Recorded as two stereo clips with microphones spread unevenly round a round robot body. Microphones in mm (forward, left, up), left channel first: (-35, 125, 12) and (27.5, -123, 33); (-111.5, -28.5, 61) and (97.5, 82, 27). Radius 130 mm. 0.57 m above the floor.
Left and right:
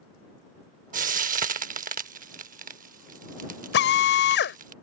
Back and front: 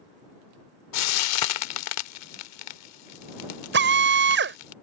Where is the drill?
60° left.